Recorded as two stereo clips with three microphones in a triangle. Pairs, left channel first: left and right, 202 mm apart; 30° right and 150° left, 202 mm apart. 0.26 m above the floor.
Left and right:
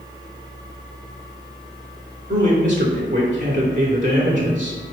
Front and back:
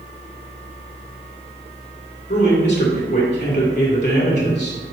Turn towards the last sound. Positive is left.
turn(degrees=-45)